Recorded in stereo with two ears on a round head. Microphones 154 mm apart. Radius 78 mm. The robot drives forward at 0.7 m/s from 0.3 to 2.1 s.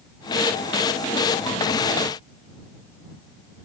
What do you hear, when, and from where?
Only background noise.